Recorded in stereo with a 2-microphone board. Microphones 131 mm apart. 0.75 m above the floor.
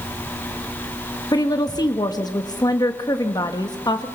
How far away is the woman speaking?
About 1.1 m.